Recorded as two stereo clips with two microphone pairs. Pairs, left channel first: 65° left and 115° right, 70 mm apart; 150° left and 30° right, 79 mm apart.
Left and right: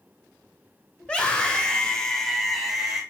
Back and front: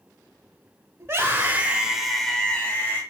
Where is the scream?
Straight ahead, 1.2 m; by 3.0 s 155° left, 1.1 m.